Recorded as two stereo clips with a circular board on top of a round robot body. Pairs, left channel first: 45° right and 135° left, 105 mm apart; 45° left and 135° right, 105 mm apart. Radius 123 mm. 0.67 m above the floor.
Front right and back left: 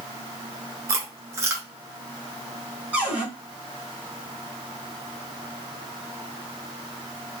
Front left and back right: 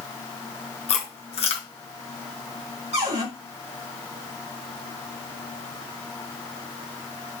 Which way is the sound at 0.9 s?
70° left.